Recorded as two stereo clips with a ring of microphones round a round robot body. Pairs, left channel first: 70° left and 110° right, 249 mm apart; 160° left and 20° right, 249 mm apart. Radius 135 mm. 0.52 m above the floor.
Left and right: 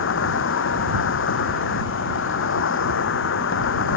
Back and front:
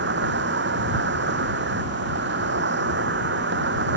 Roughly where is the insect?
Ahead left.